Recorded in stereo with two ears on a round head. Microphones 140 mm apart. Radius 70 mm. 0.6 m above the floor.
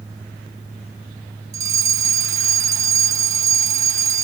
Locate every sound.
1.5 s a fire alarm: 20° right (ahead or behind)